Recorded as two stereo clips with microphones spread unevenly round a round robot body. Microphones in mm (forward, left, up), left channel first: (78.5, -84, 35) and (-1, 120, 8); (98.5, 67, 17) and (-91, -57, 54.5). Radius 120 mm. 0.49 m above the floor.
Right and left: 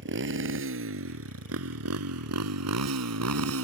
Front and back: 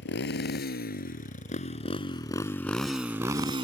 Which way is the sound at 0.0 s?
80° left.